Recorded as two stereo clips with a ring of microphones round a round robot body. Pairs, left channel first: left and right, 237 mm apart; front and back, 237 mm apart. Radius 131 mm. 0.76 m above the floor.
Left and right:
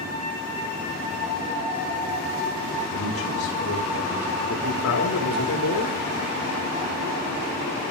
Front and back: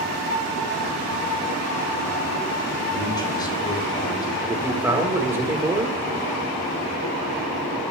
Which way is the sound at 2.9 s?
70° left.